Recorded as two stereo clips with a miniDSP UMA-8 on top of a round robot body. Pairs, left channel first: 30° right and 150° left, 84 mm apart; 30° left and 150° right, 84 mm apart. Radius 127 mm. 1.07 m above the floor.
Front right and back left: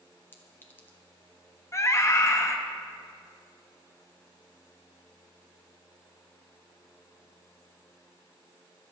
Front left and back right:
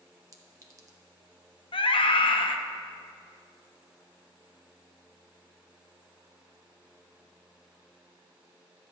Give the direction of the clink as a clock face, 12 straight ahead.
3 o'clock.